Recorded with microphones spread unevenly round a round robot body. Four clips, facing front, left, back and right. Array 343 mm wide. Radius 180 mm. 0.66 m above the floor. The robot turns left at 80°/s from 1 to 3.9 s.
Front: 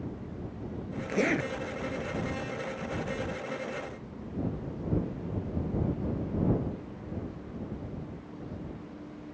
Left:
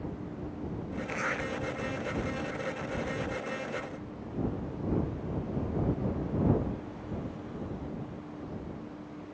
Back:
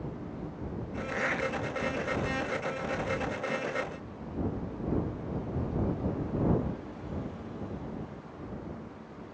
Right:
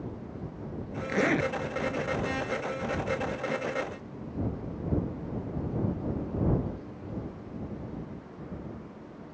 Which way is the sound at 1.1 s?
40° right.